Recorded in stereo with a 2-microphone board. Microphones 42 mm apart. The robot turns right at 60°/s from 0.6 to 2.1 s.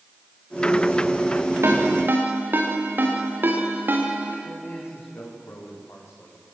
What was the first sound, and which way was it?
A ringtone, 85° right.